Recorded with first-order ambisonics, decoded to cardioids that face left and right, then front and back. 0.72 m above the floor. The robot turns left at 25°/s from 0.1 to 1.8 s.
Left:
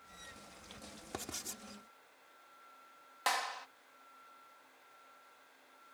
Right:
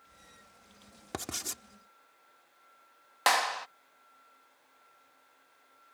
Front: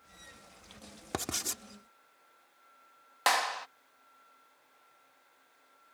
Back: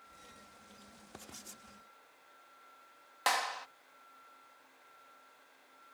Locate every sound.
1.1 s writing: 20° right; by 1.6 s 30° right
3.3 s a clap: 65° right